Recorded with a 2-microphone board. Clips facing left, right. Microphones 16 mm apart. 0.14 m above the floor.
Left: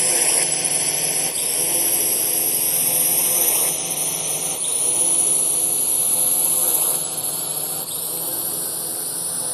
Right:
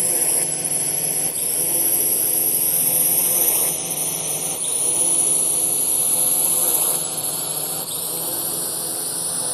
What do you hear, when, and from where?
0.0 s a drone: 35° left (ahead or behind); by 9.5 s 10° right (ahead or behind)